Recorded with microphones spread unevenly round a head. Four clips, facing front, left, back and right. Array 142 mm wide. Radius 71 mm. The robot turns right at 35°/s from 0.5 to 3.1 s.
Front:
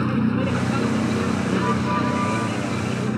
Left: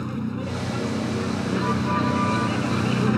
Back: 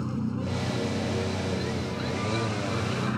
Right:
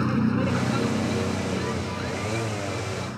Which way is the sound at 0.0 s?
20° right.